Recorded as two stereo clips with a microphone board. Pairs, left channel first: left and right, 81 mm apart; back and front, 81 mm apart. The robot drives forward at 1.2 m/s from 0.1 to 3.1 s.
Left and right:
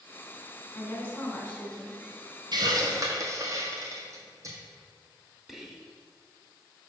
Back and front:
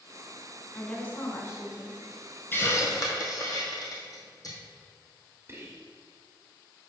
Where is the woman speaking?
115° left, 1.4 m; by 2.0 s 160° left, 2.5 m.